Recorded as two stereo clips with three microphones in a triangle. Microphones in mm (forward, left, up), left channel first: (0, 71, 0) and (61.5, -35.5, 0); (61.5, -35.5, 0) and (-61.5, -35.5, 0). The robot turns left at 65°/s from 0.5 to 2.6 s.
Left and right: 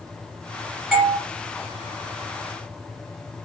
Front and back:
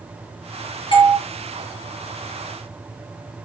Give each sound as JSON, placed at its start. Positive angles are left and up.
{"t": 0.9, "sound": "a doorbell", "azimuth_deg": 30, "distance_m": 1.2}